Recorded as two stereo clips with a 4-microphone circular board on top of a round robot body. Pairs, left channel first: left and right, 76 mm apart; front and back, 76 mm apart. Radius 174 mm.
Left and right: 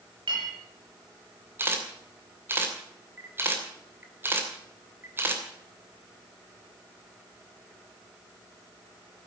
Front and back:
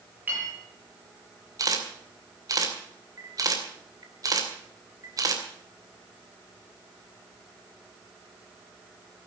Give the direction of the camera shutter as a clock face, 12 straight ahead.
5 o'clock.